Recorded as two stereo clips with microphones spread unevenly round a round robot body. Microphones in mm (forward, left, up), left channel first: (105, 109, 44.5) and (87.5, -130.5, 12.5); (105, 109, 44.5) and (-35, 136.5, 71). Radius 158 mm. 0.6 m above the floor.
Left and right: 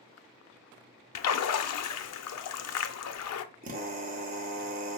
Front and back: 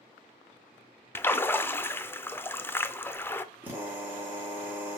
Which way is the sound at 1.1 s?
70° left.